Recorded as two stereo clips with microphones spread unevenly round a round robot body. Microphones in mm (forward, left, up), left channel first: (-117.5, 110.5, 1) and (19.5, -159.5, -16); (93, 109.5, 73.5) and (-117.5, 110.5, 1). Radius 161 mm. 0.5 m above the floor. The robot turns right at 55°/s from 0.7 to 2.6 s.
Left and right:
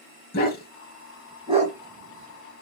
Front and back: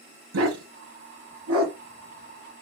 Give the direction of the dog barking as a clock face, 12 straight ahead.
6 o'clock.